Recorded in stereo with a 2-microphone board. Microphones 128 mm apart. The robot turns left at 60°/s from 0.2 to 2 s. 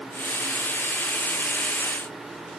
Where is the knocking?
I don't hear knocking.